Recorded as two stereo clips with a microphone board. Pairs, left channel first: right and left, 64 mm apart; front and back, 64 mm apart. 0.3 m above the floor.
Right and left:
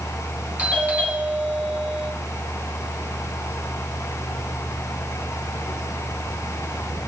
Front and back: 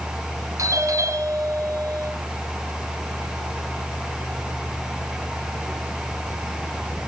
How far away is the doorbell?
About 5 m.